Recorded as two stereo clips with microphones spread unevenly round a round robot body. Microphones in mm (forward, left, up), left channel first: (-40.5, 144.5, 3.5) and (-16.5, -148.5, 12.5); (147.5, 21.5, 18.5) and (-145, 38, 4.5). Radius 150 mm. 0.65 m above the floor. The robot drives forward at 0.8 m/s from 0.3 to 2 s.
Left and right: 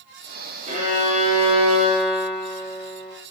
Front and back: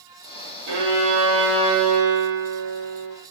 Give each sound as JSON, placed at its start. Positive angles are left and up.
{"t": 0.7, "sound": "a violin", "azimuth_deg": -150, "distance_m": 5.5}